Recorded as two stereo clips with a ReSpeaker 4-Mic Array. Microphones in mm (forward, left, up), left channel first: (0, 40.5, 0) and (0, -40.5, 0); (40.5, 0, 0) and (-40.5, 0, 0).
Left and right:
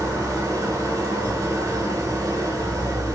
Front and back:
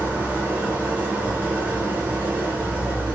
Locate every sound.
0.0 s an engine running: 120° right, 0.9 m